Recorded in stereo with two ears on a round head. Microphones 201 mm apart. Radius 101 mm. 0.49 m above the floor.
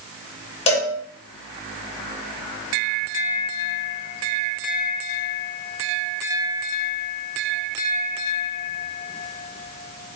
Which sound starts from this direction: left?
A cowbell, at 0.7 s.